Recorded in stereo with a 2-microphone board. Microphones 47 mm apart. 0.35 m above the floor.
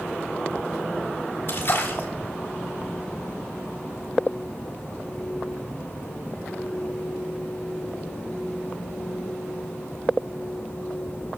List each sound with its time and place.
1.5 s a splash: 55° left (ahead or behind), 3 m